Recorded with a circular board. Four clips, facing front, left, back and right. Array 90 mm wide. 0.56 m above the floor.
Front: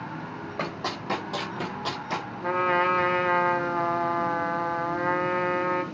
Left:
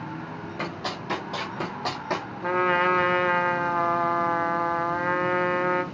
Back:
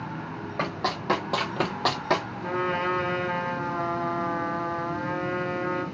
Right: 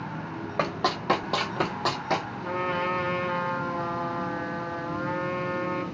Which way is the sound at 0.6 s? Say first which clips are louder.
Right 7 dB, back 3 dB; 95° right.